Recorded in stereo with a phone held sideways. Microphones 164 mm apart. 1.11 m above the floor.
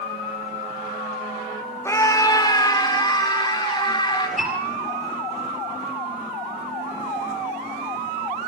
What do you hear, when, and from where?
1.9 s a scream: 15° left (ahead or behind), 0.9 m; by 4.3 s 25° left (ahead or behind), 4 m
4.4 s a piano: 5° right (ahead or behind), 5 m